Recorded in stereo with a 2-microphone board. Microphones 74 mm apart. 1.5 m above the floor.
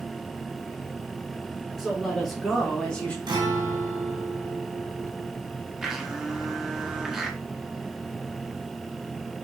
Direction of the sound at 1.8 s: 5° right (ahead or behind).